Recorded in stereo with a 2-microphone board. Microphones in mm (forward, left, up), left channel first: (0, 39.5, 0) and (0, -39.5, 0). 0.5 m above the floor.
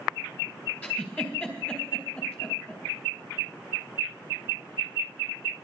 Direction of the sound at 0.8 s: 20° left (ahead or behind).